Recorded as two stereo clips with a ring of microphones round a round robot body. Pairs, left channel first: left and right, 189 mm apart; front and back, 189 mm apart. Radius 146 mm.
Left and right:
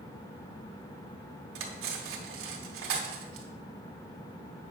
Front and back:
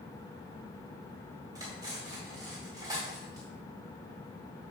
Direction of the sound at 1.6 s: 105° right.